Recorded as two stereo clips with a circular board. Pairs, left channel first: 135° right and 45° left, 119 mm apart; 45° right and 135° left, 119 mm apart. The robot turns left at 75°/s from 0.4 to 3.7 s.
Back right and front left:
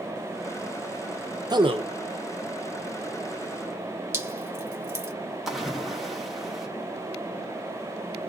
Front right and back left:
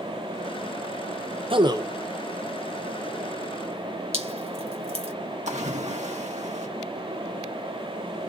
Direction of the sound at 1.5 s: 100° left.